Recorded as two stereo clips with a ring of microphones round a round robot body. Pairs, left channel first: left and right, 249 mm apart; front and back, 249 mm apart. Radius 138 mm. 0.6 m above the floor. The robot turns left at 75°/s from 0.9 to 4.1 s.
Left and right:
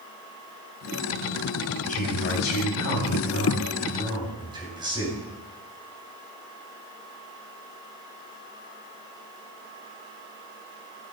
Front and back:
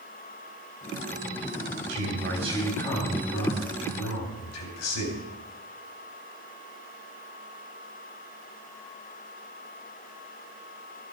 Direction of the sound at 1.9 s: 150° left.